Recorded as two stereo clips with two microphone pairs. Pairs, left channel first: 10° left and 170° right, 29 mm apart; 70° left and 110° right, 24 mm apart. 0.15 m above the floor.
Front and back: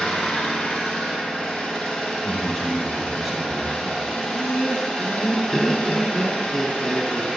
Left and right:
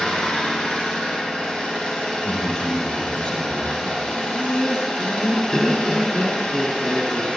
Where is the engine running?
65° left, 4.5 m.